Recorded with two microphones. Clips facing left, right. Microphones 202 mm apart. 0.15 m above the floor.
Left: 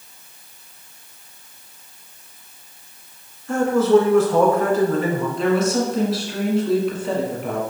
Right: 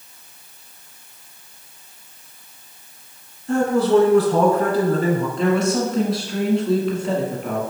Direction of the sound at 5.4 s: Centre (ahead or behind).